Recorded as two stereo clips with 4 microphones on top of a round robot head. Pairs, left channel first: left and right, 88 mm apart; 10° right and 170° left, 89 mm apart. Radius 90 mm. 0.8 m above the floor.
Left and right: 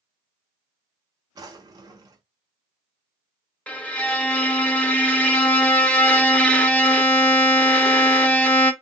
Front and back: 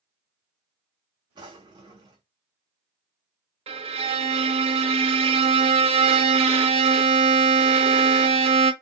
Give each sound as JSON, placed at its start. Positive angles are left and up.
{"t": 1.4, "sound": "a drawer", "azimuth_deg": -135, "distance_m": 0.8}
{"t": 3.7, "sound": "a violin", "azimuth_deg": 165, "distance_m": 0.6}